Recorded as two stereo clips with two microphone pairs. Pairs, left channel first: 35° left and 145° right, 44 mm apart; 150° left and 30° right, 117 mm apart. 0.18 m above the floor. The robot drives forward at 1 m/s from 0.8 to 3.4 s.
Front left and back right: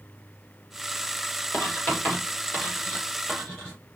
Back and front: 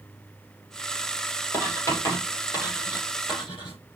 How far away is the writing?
About 5.5 m.